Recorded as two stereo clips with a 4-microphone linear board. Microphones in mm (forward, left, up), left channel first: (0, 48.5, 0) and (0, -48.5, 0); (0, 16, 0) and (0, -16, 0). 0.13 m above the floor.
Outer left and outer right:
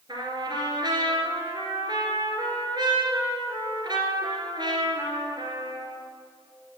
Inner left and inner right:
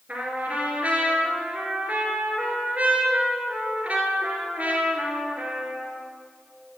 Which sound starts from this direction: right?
A trumpet, at 0.1 s.